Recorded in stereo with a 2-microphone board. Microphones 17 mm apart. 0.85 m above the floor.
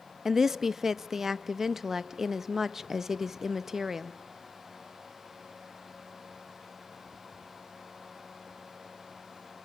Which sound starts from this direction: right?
A woman speaking, at 0.2 s.